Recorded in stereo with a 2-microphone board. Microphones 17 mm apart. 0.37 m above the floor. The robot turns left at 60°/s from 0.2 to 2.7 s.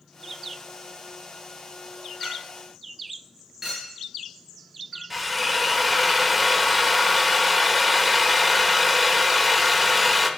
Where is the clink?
20° left (ahead or behind), 5 m; by 5.0 s 10° right (ahead or behind), 5 m.